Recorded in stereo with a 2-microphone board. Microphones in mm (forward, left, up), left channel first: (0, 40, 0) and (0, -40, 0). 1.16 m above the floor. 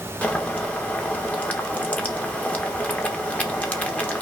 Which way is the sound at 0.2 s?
20° left (ahead or behind).